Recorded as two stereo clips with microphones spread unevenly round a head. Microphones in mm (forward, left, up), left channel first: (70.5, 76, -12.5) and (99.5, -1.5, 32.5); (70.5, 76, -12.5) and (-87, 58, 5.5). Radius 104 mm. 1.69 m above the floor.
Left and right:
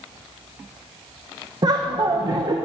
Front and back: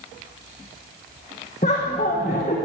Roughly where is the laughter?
Ahead right.